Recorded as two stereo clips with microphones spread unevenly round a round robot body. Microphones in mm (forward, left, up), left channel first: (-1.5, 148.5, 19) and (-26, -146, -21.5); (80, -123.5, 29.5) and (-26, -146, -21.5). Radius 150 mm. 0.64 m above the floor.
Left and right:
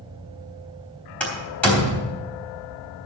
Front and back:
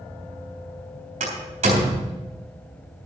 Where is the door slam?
170° left, 3.5 m.